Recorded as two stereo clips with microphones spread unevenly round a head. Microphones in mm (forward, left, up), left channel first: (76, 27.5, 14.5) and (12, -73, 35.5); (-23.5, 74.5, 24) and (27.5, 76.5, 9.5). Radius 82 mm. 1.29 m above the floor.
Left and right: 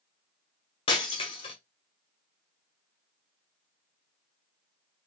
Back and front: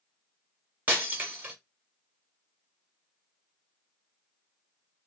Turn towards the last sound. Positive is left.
turn(degrees=55)